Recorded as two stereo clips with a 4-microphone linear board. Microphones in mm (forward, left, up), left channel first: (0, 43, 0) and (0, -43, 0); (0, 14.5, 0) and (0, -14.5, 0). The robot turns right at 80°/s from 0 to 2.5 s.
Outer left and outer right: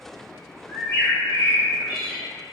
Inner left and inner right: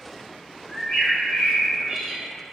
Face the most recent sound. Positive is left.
turn(degrees=-75)